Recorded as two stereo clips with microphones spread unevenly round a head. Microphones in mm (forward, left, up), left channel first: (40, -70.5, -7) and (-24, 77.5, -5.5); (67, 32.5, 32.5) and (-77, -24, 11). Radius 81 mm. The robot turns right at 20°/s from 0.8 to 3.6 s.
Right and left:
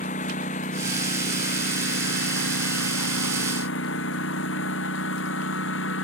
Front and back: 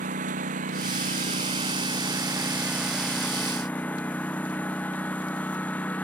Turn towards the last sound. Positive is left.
turn(degrees=-60)